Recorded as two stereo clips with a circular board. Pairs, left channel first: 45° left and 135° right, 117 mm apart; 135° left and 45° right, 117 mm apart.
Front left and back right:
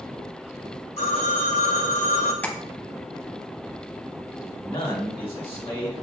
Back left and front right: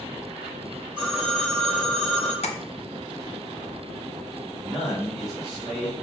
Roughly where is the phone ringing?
Ahead left.